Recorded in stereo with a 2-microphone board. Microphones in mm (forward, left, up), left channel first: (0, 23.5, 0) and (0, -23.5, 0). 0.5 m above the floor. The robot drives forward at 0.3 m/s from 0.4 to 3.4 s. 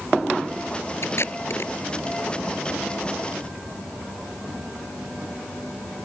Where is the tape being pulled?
60° left (ahead or behind).